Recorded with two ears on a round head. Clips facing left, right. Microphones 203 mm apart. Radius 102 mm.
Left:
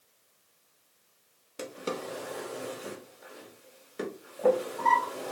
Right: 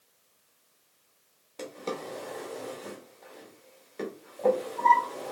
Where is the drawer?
15° left (ahead or behind), 0.7 m.